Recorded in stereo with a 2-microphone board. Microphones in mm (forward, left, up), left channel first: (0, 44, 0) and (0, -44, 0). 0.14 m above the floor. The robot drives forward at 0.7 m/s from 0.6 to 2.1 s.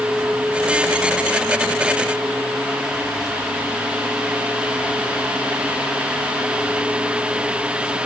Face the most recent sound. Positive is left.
No sound to turn to.